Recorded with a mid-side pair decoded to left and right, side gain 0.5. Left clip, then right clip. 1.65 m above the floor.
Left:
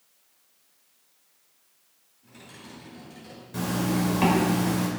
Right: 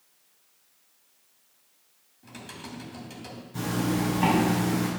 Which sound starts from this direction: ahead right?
Typing on a keyboard, at 2.2 s.